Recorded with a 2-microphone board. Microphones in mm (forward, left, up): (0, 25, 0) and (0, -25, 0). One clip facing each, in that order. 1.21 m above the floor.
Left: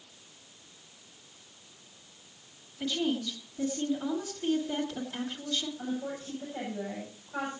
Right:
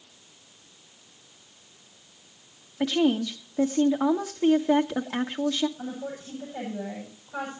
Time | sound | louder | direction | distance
2.8 | a woman speaking | right 8 dB | 85° right | 1.3 m
5.8 | a woman speaking | even | 10° right (ahead or behind) | 8 m